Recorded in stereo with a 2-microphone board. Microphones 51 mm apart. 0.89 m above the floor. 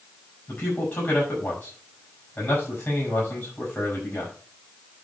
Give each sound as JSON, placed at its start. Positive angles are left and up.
{"t": 0.5, "sound": "a man speaking", "side_deg": 35, "distance_m": 7.0}